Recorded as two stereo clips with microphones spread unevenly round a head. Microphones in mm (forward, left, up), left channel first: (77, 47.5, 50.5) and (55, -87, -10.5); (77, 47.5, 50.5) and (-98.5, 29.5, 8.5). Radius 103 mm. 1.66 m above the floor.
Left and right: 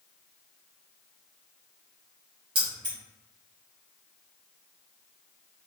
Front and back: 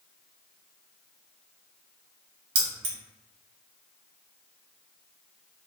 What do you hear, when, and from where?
2.5 s keys jangling: straight behind, 0.9 m